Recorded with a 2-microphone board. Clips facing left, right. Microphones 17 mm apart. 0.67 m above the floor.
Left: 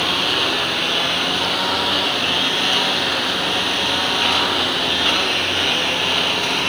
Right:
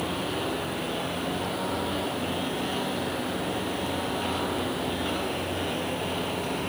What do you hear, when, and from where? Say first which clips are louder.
0.0 s a lawn mower: left 11 dB; 65° left (ahead or behind)